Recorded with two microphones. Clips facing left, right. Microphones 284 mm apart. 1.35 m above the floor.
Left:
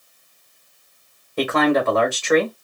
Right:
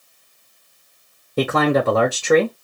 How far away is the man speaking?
About 0.9 m.